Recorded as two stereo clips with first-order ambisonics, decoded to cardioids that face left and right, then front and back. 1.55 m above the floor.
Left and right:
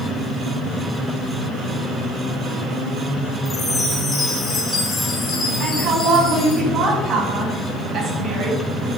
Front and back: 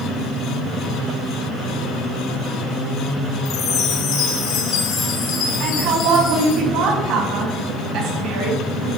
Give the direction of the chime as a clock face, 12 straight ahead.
11 o'clock.